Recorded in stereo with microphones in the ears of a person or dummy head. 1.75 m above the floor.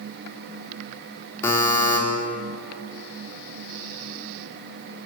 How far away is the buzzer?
About 4.5 m.